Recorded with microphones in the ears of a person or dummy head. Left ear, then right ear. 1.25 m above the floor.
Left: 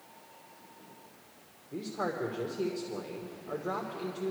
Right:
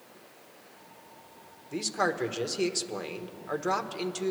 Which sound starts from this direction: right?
A man speaking, at 1.7 s.